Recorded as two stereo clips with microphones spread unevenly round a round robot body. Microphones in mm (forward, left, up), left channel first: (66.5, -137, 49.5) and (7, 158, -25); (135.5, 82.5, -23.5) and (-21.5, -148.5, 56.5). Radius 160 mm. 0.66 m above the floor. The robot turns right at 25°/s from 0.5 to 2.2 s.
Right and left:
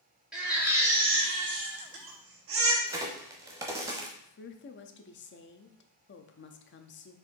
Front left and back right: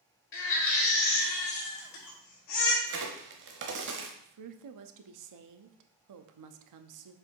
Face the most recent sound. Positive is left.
turn(degrees=-135)